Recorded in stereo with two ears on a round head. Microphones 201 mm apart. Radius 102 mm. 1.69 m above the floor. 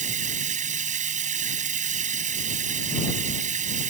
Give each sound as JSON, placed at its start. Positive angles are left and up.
{"t": 0.0, "sound": "running water", "side_deg": -30}